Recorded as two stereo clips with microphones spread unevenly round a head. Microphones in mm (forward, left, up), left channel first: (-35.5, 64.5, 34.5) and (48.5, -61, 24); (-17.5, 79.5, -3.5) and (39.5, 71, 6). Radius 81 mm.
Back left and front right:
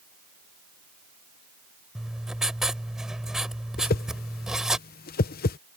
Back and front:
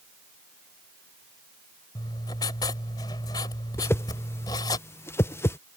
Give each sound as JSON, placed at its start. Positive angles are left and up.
{"t": 1.9, "sound": "writing", "azimuth_deg": -145}
{"t": 3.8, "sound": "a whoosh", "azimuth_deg": 140}